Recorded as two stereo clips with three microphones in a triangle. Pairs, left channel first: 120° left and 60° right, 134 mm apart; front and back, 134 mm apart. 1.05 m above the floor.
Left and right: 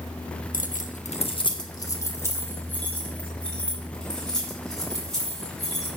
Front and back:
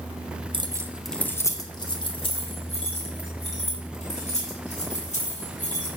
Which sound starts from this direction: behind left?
Keys jangling, at 0.5 s.